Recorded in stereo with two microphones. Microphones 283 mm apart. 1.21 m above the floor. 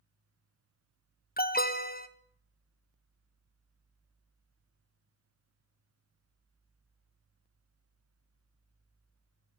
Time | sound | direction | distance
1.4 | an alarm | 30° left (ahead or behind) | 1.2 m